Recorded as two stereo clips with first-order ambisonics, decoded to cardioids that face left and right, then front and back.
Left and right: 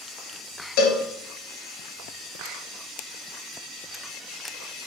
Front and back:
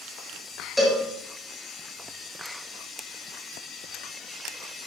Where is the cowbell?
85° left, 3 m.